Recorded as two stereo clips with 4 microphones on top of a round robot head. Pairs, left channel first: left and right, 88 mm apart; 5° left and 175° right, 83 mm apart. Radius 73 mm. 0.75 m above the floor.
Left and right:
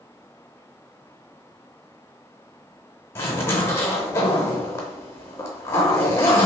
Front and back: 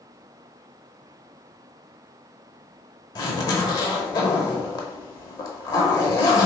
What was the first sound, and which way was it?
A zipper, 35° left.